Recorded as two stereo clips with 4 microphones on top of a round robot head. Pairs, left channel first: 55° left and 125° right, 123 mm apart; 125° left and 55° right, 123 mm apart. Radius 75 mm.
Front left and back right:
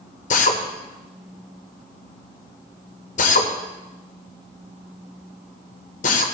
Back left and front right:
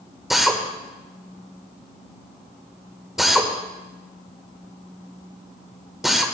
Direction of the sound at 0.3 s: 35° left.